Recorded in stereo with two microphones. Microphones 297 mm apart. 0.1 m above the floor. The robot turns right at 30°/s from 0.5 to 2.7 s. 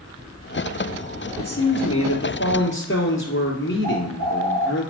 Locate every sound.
1.4 s a man speaking: 85° left, 2 m; by 4.8 s 125° left, 2 m
3.8 s a bird: 60° right (ahead or behind), 4.5 m